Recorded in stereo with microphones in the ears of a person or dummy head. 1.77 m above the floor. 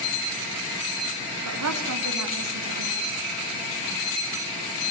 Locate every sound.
1.4 s a woman speaking: 80° right, 3.5 m